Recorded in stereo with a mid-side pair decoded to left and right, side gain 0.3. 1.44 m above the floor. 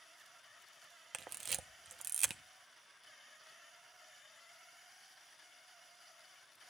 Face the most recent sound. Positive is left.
turn(degrees=-70)